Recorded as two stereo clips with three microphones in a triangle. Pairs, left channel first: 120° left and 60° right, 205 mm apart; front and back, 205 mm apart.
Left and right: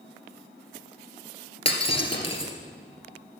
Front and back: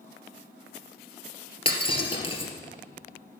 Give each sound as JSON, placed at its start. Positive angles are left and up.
{"t": 1.6, "sound": "breaking glass", "azimuth_deg": 60, "distance_m": 2.0}